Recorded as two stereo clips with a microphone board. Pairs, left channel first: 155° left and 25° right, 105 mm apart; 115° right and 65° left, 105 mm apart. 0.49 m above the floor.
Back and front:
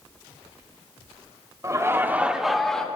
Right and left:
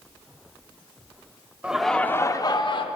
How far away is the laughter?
About 0.8 m.